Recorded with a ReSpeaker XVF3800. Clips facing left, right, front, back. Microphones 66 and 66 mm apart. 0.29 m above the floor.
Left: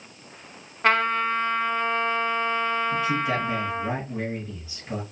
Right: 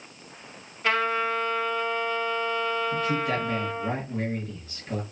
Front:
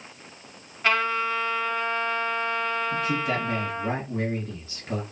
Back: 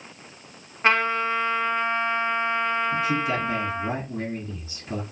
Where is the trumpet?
125° left, 0.8 m.